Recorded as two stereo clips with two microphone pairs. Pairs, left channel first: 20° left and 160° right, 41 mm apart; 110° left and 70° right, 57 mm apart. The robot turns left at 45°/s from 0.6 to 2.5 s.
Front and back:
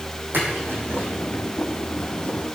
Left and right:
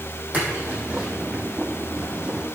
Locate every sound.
0.3 s a splash: 130° right, 5.5 m; by 1.1 s 155° right, 5.5 m